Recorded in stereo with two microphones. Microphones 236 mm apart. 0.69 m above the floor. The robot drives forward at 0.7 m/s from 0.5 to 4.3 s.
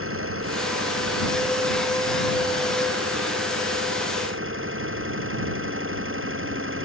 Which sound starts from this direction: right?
An engine running, at 0.0 s.